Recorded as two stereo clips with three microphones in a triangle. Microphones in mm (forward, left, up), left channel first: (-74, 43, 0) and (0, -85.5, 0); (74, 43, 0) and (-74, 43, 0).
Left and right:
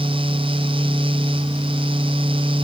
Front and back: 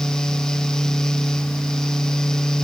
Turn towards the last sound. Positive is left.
No sound to turn to.